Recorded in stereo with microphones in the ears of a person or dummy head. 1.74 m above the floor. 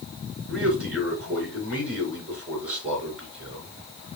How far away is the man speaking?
About 3 m.